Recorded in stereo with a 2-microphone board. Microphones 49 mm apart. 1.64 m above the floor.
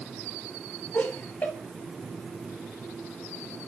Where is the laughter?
50° left (ahead or behind), 1.6 m.